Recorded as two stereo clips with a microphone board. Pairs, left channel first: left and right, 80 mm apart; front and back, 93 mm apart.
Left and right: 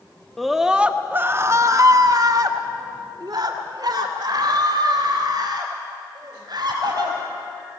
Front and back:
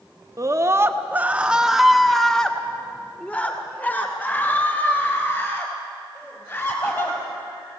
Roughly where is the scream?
Behind.